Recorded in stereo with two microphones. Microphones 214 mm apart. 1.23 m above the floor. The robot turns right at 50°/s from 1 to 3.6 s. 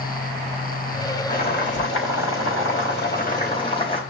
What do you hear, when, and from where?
1.3 s boiling: 40° left, 4.5 m; by 4.0 s 155° left, 4.5 m